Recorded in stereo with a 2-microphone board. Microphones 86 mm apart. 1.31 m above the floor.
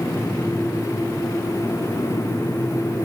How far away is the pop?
I don't hear a pop.